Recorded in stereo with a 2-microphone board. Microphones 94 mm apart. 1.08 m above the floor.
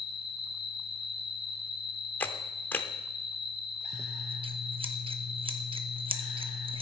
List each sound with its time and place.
0.0 s an insect: 60° left (ahead or behind), 0.9 m
2.2 s a camera shutter: 20° left (ahead or behind), 0.8 m
3.9 s scissors: 70° right (ahead or behind), 0.9 m